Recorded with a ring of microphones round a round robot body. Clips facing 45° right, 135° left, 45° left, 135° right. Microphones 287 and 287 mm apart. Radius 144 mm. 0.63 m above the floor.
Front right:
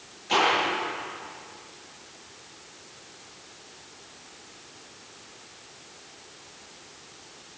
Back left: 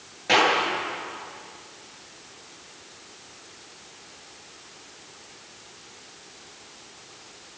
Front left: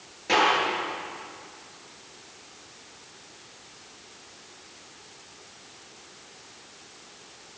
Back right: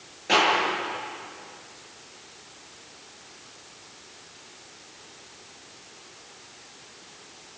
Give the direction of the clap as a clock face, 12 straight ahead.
8 o'clock.